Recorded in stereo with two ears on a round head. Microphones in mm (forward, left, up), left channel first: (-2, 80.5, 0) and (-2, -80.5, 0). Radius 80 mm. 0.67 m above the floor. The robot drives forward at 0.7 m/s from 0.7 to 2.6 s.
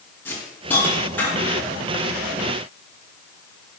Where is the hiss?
10° left (ahead or behind), 4 m.